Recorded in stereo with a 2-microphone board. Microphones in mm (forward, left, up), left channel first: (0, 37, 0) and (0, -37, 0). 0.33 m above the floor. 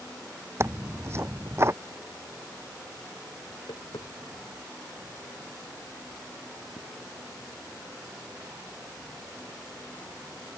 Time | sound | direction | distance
0.6 | tearing paper | 35° right (ahead or behind) | ?
3.5 | tapping | 80° left | ?